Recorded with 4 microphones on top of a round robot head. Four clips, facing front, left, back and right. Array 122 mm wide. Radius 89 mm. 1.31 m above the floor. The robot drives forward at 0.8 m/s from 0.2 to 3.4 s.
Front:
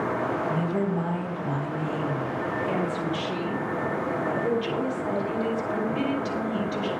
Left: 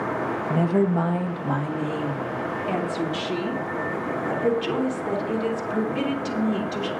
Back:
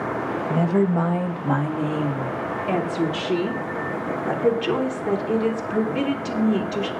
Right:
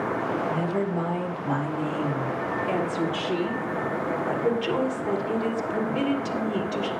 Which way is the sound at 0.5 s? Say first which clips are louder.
Left 5 dB, back 6 dB; 135° left.